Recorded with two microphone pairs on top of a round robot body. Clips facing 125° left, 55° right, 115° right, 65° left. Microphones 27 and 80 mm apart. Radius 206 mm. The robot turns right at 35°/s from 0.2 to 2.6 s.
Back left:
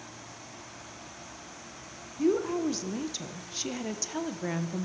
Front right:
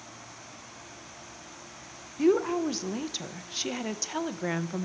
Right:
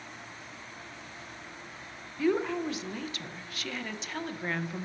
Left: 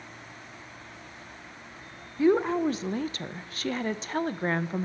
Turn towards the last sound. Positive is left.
turn(degrees=15)